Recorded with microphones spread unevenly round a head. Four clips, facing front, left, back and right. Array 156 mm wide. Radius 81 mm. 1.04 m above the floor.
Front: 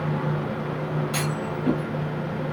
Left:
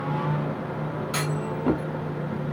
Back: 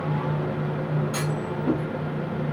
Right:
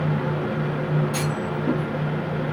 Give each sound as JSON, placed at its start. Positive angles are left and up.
{"t": 1.1, "sound": "a clunk", "azimuth_deg": 65, "distance_m": 1.2}